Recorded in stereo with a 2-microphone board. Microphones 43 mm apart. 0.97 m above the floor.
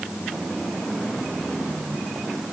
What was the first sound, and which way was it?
Only background noise.